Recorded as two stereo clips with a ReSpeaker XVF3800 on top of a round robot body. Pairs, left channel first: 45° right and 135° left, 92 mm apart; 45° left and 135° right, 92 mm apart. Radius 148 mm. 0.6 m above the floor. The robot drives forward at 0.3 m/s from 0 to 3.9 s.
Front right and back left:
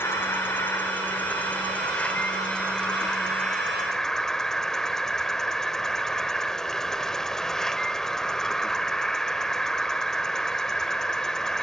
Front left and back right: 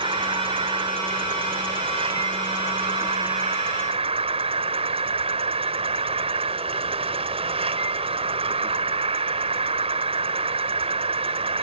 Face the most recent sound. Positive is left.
turn(degrees=-130)